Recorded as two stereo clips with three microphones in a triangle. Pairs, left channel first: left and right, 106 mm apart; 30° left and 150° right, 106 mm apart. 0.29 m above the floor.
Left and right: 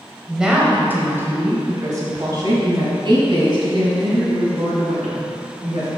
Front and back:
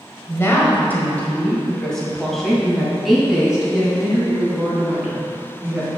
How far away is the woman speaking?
About 1.3 m.